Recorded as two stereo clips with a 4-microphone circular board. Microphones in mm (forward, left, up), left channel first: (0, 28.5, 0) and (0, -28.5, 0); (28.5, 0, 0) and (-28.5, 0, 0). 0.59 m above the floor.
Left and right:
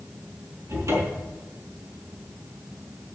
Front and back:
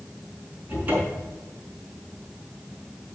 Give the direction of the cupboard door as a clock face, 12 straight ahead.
4 o'clock.